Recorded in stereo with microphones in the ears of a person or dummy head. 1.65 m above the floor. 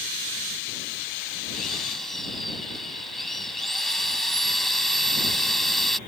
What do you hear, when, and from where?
1.5 s a drill: 5° left (ahead or behind)